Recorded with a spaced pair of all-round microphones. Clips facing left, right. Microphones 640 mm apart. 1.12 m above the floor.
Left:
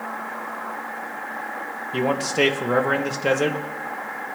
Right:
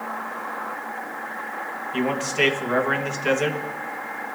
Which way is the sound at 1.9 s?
65° left (ahead or behind).